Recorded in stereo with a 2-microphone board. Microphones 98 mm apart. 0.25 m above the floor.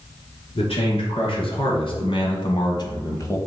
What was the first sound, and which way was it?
A man speaking, 70° left (ahead or behind).